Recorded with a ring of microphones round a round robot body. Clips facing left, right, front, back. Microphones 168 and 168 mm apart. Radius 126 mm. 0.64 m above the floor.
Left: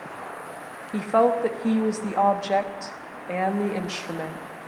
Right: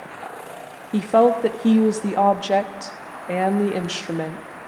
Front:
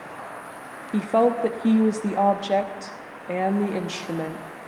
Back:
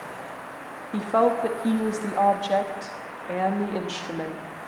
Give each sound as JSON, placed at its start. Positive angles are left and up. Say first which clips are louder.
{"t": 0.9, "sound": "a woman speaking", "louder": "right 4 dB, front 2 dB", "azimuth_deg": -55, "distance_m": 1.1}